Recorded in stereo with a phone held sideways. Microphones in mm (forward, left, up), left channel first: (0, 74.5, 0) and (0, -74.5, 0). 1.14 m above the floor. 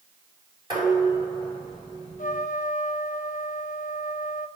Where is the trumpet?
60° left (ahead or behind), 0.7 m.